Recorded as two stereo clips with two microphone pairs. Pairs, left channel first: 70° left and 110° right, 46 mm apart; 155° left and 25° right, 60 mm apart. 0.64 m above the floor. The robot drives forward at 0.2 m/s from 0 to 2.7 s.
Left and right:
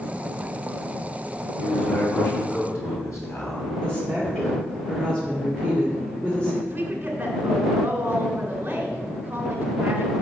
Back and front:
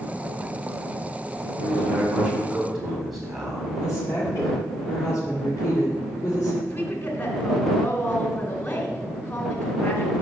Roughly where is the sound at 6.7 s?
Behind.